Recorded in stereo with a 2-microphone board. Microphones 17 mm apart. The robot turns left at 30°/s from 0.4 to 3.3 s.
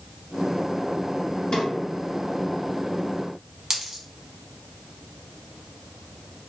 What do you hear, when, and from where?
1.5 s a drawer: 50° left (ahead or behind), 1.7 m
3.7 s a dropped coin: 25° right (ahead or behind), 0.9 m